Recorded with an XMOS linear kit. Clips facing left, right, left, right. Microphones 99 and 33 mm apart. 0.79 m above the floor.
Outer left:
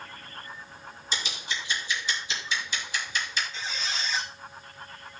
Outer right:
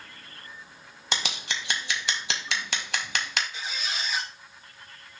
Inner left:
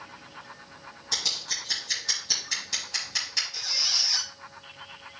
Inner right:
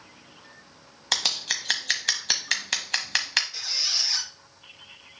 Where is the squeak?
10° right (ahead or behind), 2.5 m.